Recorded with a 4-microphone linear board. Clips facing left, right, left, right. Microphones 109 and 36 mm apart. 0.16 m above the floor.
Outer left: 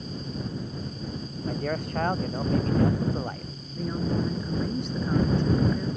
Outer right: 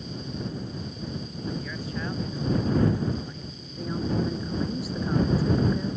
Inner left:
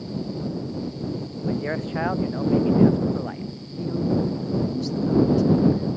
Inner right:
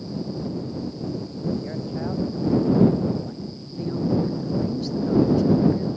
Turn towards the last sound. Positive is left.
turn(degrees=-5)  # may be behind; listen again after turning